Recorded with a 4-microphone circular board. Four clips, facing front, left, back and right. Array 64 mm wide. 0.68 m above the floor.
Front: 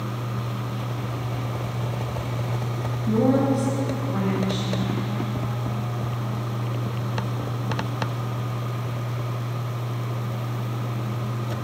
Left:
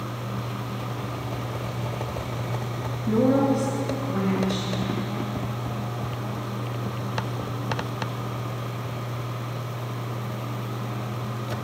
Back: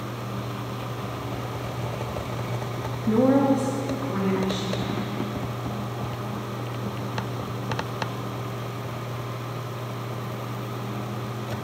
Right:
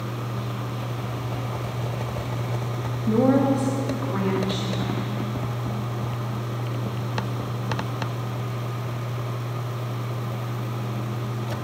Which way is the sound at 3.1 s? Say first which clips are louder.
Right 1 dB, back 1 dB; 165° right.